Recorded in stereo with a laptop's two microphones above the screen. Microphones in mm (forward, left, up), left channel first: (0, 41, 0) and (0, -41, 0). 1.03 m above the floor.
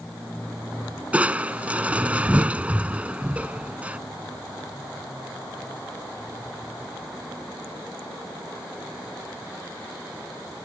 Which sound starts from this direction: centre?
Crushing, at 1.1 s.